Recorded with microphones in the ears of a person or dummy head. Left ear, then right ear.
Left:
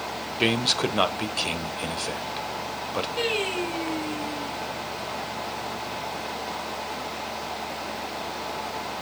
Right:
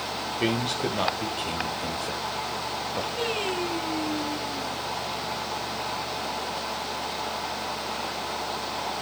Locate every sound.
0.4 s a man speaking: 45° left (ahead or behind), 1.4 m
3.2 s singing: 65° left (ahead or behind), 3.5 m